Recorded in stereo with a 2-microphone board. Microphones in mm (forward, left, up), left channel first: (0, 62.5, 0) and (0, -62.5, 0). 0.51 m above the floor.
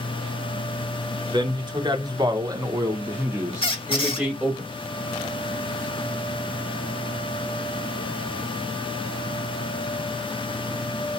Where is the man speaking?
35° right (ahead or behind), 1.2 m; by 4.6 s 5° left (ahead or behind), 1.2 m.